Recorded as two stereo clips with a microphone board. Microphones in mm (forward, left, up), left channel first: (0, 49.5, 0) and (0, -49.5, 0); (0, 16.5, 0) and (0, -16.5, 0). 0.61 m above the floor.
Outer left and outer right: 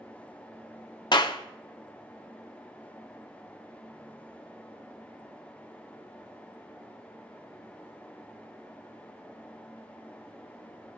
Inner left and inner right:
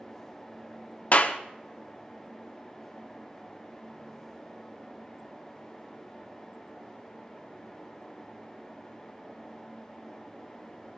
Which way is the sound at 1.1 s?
45° left (ahead or behind).